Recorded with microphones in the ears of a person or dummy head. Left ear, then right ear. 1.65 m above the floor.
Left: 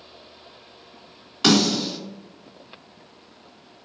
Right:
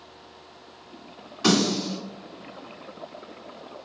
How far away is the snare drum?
About 1.7 m.